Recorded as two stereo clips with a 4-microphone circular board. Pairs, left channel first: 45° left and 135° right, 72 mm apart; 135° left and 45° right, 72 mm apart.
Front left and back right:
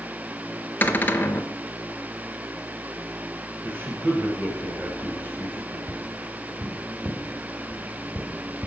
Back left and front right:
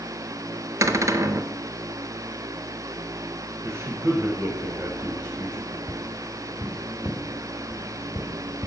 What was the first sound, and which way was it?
A cupboard door, 15° right.